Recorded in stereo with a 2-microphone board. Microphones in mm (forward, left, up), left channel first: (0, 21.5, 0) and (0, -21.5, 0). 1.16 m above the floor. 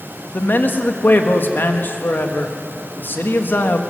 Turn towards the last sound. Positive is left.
turn(degrees=55)  # may be behind; listen again after turning